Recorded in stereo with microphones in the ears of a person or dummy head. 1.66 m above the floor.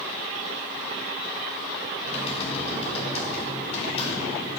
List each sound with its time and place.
2.0 s typing on a keyboard: 35° left (ahead or behind), 2.0 m